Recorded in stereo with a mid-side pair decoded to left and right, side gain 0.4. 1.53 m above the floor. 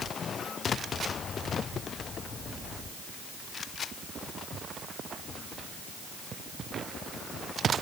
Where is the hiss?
I don't hear a hiss.